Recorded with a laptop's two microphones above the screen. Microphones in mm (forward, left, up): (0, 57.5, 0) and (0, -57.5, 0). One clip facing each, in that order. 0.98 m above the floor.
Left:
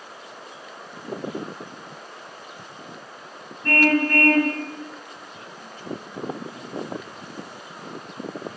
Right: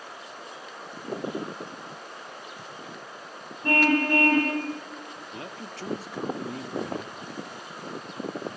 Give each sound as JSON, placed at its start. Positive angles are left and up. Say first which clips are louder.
{"t": 3.6, "sound": "a car horn", "louder": "left 2 dB", "side_deg": -20, "distance_m": 3.5}
{"t": 5.3, "sound": "a man speaking", "louder": "right 2 dB", "side_deg": -80, "distance_m": 1.8}